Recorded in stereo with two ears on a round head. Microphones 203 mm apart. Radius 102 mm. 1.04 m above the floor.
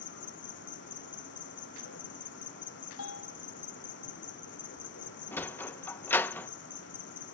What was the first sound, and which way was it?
An insect, 60° left (ahead or behind).